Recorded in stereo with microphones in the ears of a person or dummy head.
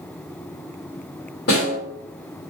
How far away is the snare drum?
About 1.6 m.